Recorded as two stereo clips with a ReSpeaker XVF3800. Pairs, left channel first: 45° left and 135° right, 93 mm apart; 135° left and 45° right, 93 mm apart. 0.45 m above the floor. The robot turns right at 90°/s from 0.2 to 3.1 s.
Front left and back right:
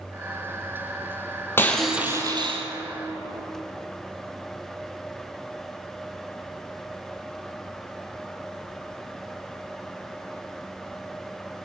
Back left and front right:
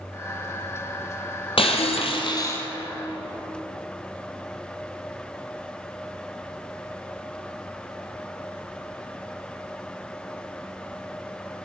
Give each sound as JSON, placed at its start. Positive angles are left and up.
{"t": 1.6, "sound": "breaking glass", "azimuth_deg": 110, "distance_m": 1.9}